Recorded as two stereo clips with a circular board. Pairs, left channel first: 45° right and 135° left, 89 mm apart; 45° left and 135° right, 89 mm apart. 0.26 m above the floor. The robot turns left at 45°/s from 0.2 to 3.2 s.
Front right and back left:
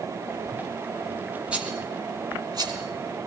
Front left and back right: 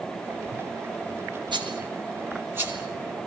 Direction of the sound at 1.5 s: 150° right.